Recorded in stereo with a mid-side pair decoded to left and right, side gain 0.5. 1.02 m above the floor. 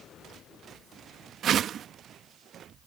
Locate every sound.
1.4 s a whoosh: 55° right